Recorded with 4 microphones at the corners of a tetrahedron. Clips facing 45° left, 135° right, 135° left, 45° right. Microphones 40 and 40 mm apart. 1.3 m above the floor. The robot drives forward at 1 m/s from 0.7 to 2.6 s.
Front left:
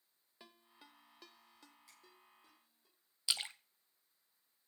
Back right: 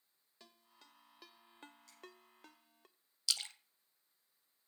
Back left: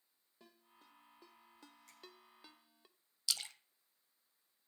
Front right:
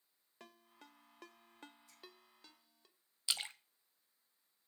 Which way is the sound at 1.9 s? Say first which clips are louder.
Even, back left 3 dB; 120° left.